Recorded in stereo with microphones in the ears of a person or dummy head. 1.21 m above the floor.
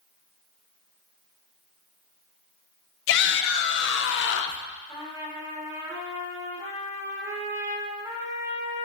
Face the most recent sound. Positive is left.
turn(degrees=-10)  # may be behind; listen again after turning